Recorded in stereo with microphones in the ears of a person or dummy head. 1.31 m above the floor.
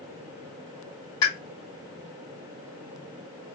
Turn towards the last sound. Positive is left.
turn(degrees=20)  # may be behind; listen again after turning